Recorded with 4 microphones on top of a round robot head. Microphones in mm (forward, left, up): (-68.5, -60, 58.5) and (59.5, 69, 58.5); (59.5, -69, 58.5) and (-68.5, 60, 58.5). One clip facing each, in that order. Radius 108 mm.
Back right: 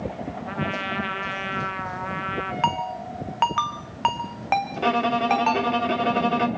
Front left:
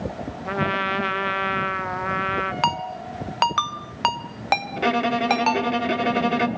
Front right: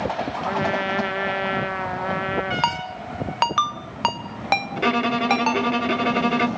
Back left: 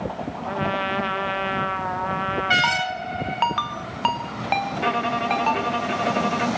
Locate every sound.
0.5 s a trumpet: 25° left, 1.2 m
2.6 s a ringtone: 5° right, 1.2 m
4.8 s a violin: 25° right, 0.8 m